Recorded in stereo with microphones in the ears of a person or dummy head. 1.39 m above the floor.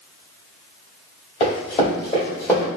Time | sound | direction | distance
1.4 | running footsteps | 30° left (ahead or behind) | 1.7 m